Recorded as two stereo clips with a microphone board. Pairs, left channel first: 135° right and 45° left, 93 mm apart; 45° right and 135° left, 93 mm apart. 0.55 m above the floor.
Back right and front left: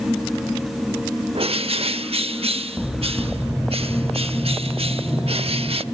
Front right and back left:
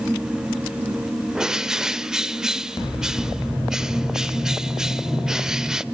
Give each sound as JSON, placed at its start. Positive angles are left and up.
{"t": 1.4, "sound": "a bird", "azimuth_deg": 50, "distance_m": 0.7}